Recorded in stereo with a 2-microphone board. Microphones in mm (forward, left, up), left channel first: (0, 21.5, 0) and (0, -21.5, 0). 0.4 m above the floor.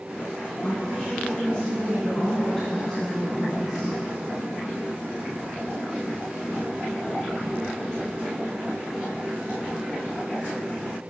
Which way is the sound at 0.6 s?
30° left (ahead or behind).